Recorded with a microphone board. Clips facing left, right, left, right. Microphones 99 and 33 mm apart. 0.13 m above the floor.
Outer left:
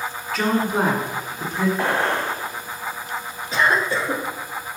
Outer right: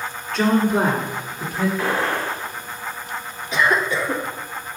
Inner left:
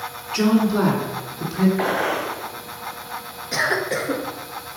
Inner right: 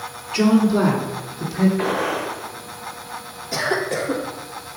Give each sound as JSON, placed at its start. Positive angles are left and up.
{"t": 0.3, "sound": "a woman speaking", "side_deg": 5, "distance_m": 1.5}
{"t": 1.8, "sound": "a gunshot", "side_deg": 60, "distance_m": 2.5}
{"t": 3.5, "sound": "a cough", "side_deg": 35, "distance_m": 1.6}